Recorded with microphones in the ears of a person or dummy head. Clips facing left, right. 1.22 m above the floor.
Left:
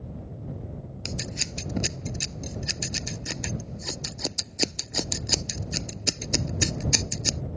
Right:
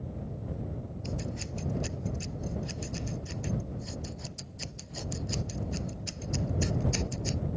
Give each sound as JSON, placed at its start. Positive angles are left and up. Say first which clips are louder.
{"t": 1.1, "sound": "scissors", "louder": "left 1 dB", "side_deg": 85}